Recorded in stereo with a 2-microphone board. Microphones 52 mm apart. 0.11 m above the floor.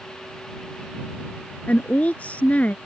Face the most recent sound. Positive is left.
turn(degrees=30)  # may be behind; listen again after turning